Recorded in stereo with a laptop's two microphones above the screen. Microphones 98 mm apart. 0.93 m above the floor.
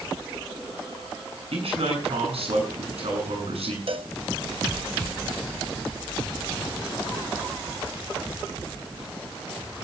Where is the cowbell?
60° right (ahead or behind), 1.2 m.